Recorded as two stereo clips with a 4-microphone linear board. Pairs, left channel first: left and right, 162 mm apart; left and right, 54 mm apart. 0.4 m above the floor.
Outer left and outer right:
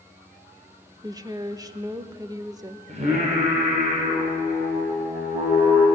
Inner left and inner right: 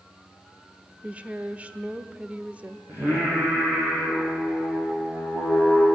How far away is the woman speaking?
About 0.9 m.